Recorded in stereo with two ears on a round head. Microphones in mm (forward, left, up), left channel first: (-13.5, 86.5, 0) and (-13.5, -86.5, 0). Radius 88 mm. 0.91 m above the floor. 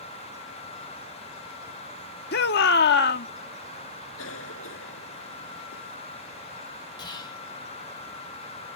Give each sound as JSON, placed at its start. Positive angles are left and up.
{"t": 2.3, "sound": "a shout", "side_deg": 60}
{"t": 4.2, "sound": "a cough", "side_deg": 85}
{"t": 7.0, "sound": "whispering", "side_deg": 20}